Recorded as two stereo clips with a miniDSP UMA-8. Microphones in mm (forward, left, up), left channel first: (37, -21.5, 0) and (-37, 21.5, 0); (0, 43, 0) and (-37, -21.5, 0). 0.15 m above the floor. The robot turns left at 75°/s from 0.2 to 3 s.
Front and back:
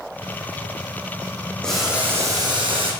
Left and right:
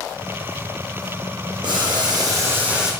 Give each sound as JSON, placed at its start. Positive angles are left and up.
{"t": 1.6, "sound": "boiling", "azimuth_deg": -110, "distance_m": 2.5}